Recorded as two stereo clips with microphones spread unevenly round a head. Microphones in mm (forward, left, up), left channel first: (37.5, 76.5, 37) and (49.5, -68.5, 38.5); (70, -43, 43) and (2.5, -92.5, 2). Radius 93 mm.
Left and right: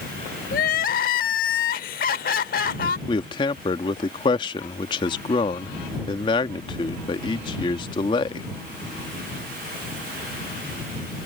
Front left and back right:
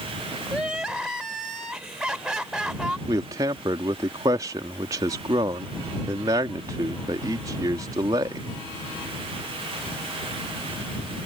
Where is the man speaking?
160° left.